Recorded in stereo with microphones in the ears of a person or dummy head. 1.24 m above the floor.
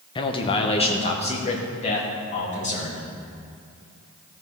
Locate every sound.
0.1 s a man speaking: 25° left (ahead or behind), 0.9 m; by 3.0 s 40° left (ahead or behind), 2.5 m